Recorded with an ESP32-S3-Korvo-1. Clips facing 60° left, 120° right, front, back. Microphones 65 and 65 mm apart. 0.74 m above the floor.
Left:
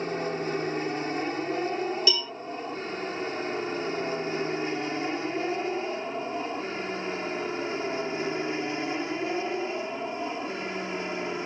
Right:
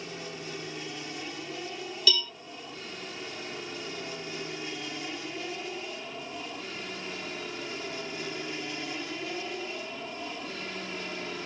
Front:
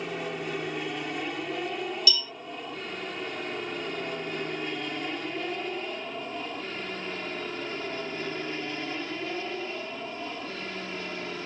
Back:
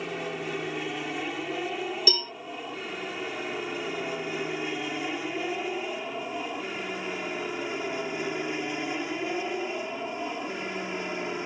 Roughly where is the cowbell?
Behind left.